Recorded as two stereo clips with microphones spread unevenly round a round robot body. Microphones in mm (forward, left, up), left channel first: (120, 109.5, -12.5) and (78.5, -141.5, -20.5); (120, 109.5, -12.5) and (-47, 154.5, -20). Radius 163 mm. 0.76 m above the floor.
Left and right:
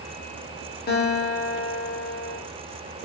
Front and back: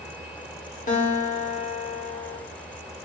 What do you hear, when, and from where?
0.9 s a guitar: 30° left, 2.5 m